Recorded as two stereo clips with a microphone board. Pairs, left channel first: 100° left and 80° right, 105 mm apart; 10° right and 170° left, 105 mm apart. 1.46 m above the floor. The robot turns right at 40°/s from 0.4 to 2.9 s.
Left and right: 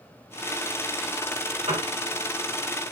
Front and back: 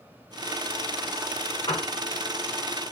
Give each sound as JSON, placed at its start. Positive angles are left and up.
{"t": 1.7, "sound": "a piano", "azimuth_deg": -60, "distance_m": 4.5}